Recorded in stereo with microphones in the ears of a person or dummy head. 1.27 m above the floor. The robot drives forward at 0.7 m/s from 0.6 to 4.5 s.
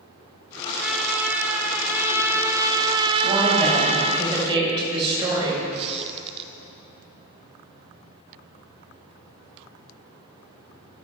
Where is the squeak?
30° right (ahead or behind), 1.0 m.